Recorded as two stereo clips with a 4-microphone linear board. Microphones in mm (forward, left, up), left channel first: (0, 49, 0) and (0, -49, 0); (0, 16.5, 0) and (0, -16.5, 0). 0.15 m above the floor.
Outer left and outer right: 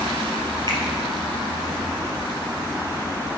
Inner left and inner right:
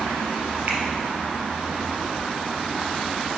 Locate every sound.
0.7 s a finger snap: 50° right (ahead or behind), 2.5 m